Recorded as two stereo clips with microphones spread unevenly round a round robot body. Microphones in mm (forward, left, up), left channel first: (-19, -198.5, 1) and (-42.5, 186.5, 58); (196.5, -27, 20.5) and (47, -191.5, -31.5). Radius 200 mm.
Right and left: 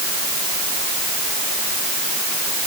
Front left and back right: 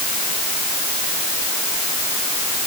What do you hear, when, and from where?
Only background noise.